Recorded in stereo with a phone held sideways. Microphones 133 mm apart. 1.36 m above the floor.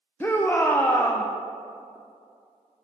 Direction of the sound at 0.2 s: 15° left (ahead or behind).